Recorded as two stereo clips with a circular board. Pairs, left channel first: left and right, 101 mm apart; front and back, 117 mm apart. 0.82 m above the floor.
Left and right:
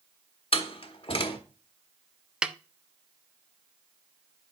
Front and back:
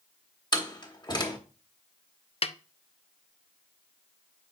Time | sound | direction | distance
0.5 | a door slam | 55° left | 1.3 m
2.4 | a snare drum | 10° right | 0.5 m